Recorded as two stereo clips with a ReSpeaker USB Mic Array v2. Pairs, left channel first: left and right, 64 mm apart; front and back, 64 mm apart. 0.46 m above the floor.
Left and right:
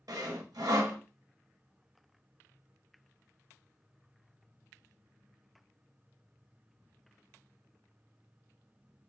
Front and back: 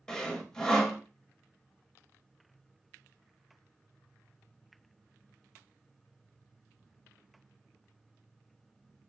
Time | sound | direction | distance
0.1 | sawing | 80° right | 0.5 m